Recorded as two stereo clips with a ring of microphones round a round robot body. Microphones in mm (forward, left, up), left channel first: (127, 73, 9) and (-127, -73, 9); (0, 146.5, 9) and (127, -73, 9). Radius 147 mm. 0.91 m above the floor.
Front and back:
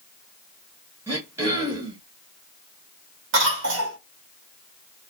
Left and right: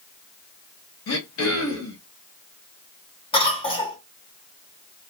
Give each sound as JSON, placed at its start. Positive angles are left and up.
{"t": 1.1, "sound": "throat clearing", "azimuth_deg": 130, "distance_m": 1.3}
{"t": 3.3, "sound": "a cough", "azimuth_deg": -175, "distance_m": 1.2}